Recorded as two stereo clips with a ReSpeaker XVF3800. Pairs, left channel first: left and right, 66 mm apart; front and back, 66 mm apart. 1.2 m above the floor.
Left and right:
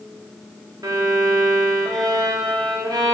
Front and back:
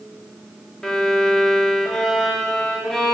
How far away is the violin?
About 1.5 m.